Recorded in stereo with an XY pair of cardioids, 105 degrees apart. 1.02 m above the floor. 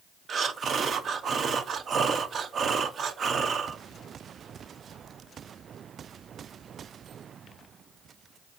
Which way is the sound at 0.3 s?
50° right.